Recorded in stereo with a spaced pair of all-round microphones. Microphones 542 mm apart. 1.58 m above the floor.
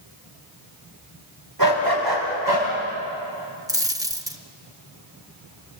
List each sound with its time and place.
1.6 s a dog barking: 40° right (ahead or behind), 4.5 m; by 2.7 s 45° right (ahead or behind), 6 m
3.7 s a dropped coin: 5° right (ahead or behind), 1.0 m